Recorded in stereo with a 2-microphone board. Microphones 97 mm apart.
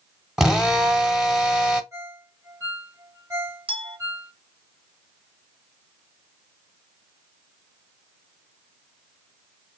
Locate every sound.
0.4 s a drill: 5° right (ahead or behind), 0.8 m
1.9 s a ringtone: 30° right (ahead or behind), 1.3 m
3.7 s a clink: 60° right (ahead or behind), 1.5 m